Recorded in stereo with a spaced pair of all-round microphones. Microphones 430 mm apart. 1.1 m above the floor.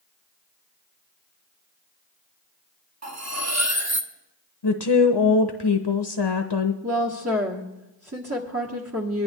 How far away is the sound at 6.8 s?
About 1.4 m.